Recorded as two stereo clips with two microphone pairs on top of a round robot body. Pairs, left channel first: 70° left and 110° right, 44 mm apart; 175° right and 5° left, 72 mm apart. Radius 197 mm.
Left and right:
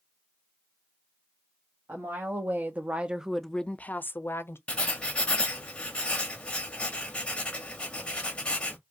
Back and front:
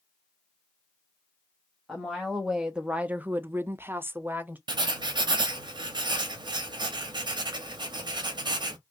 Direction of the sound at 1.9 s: 85° right.